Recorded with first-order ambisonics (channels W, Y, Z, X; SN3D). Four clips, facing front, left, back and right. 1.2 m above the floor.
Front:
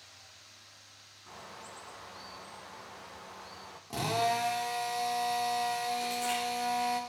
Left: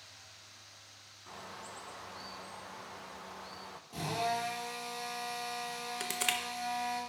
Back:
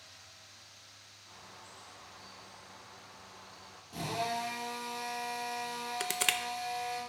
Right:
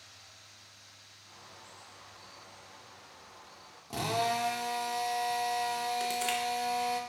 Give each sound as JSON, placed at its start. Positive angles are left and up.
{"t": 1.3, "sound": "a bird", "azimuth_deg": 55, "distance_m": 0.7}
{"t": 3.9, "sound": "a drill", "azimuth_deg": -40, "distance_m": 1.5}
{"t": 6.0, "sound": "crushing", "azimuth_deg": 160, "distance_m": 0.7}